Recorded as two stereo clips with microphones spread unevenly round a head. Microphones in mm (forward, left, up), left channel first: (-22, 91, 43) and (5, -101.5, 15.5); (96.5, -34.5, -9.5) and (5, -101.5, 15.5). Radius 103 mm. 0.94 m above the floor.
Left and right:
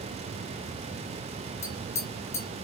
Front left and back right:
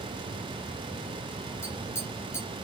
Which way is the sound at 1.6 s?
115° left.